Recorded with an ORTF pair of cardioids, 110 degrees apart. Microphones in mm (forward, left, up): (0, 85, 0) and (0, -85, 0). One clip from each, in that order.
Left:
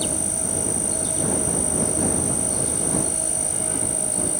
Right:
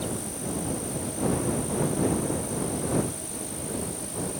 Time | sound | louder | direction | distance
0.0 | an insect | left 6 dB | 65° left | ?